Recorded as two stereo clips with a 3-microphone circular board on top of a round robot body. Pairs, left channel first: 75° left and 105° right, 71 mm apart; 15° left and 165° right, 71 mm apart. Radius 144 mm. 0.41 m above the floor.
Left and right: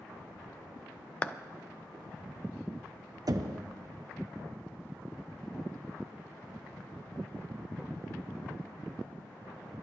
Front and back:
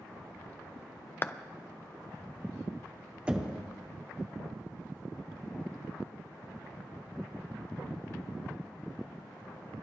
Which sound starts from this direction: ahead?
A clap, at 1.2 s.